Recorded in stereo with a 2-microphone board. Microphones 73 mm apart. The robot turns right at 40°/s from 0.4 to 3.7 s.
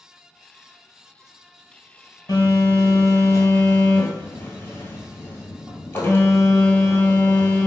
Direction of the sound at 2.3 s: 90° left.